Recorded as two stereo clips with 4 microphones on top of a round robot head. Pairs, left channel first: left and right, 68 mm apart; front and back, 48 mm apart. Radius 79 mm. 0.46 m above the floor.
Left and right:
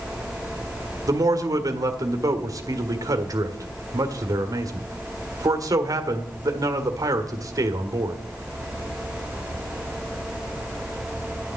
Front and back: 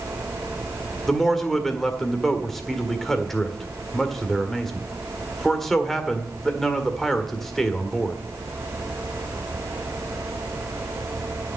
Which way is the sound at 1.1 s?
85° right.